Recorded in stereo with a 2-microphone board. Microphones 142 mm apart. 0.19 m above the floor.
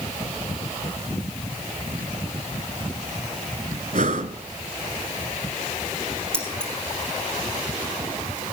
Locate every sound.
3.9 s breathing: 65° right (ahead or behind), 0.8 m
6.3 s keys jangling: 5° left (ahead or behind), 3.5 m